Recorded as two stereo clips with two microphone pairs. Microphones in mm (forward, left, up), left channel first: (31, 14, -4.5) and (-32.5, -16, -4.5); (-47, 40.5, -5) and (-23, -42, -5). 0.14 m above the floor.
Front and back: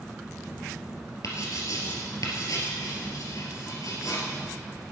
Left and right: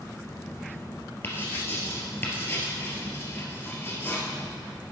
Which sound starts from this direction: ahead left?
Writing, at 1.2 s.